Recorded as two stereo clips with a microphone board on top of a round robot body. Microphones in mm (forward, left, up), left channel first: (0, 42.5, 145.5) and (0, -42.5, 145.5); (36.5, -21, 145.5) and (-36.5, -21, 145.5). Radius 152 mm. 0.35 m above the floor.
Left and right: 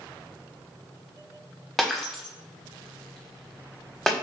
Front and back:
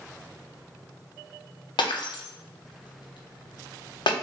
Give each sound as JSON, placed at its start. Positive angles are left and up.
{"t": 1.8, "sound": "breaking glass", "azimuth_deg": 0, "distance_m": 0.7}